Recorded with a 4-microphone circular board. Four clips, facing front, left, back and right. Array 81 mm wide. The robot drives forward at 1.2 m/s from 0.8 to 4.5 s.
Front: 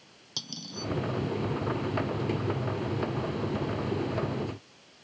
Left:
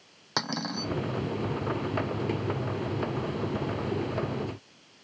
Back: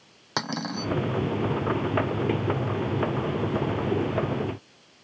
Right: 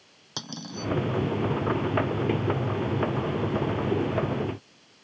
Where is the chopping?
No chopping in this recording.